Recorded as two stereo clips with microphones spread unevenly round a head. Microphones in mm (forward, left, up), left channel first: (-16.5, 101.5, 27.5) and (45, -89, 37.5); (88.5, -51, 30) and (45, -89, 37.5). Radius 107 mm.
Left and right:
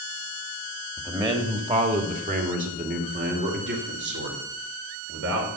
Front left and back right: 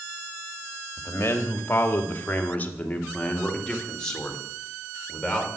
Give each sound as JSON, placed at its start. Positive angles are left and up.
{"t": 1.0, "sound": "a man speaking", "azimuth_deg": 0, "distance_m": 1.9}